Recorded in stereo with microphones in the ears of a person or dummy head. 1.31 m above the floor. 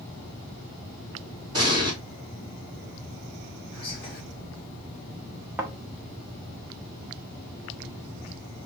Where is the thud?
5° right (ahead or behind), 0.6 m.